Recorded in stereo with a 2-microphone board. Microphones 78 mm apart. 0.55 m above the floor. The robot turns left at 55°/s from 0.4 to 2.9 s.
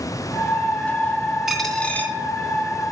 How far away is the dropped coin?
About 1.8 m.